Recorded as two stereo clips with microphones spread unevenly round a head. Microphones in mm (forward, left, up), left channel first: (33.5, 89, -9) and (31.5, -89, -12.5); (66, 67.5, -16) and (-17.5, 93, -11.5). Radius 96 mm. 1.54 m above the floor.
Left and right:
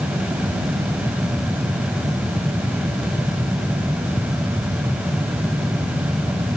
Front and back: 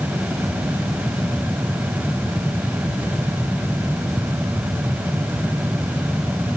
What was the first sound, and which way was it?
Only background noise.